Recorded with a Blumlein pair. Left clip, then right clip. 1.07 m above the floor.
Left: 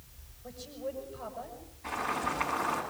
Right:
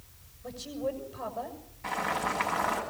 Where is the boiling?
65° right, 9 m.